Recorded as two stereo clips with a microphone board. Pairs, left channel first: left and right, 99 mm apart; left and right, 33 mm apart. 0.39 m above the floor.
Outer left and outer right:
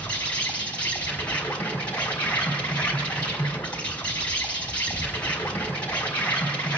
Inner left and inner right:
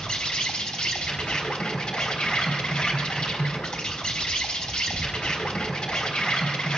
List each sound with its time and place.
0.0 s an insect: 15° left (ahead or behind), 3.5 m